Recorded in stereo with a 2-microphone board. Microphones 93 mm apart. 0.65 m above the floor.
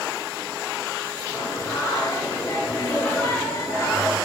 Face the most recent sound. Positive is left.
turn(degrees=30)  # may be behind; listen again after turning